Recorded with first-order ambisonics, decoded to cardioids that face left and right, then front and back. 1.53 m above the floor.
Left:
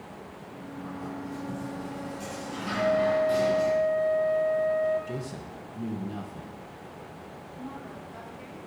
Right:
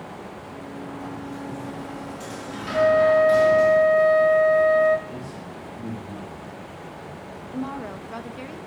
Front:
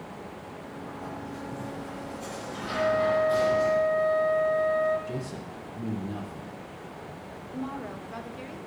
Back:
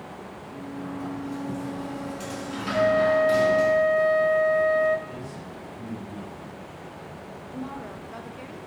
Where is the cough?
No cough in this recording.